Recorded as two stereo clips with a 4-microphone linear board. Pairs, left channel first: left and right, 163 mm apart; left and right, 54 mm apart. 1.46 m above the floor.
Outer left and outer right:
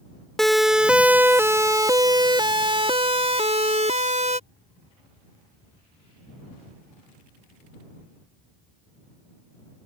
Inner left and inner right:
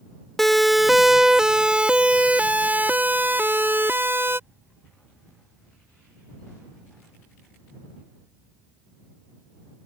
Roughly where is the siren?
Centre.